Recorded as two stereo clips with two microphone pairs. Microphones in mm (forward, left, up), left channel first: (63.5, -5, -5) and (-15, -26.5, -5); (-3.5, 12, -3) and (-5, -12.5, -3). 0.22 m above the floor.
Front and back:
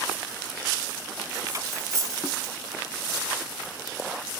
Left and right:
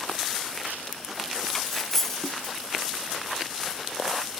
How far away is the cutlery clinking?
About 1.2 m.